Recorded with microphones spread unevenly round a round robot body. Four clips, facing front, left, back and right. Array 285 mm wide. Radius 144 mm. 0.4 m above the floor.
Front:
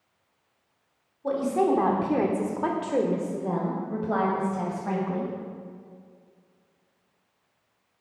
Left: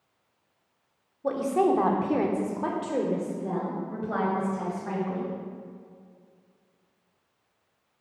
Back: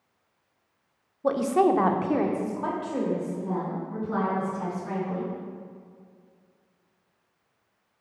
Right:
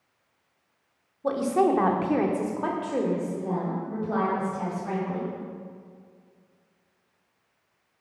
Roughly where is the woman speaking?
Behind.